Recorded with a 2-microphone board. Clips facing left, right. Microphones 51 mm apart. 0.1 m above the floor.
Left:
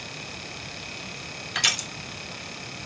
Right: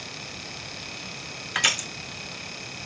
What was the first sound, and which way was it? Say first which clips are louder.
Crushing: right 2 dB; 15° right (ahead or behind).